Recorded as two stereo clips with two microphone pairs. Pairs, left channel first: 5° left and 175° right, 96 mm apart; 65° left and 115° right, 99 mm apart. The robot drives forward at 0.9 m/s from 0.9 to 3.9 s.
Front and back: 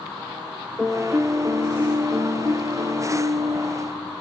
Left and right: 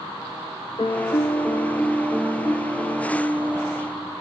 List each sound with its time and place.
0.8 s a piano: 95° left, 0.6 m; by 4.1 s 170° left, 3 m